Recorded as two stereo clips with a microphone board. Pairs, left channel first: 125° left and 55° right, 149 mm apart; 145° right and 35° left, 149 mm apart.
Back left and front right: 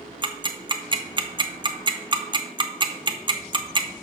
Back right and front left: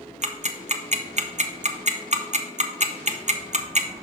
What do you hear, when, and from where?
0.2 s ticking: straight ahead, 0.6 m